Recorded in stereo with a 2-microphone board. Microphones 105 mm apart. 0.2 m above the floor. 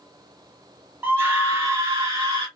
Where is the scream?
20° right (ahead or behind), 1.7 m; by 2.5 s 35° right (ahead or behind), 2.0 m.